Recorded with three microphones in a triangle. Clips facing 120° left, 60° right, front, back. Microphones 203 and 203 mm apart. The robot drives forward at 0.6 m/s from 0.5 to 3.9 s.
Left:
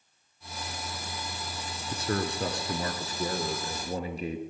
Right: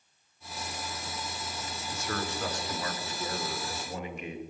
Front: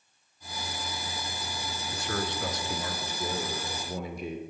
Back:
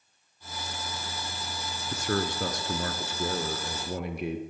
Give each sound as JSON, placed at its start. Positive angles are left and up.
{"t": 1.9, "sound": "a man speaking", "azimuth_deg": 160, "distance_m": 1.3}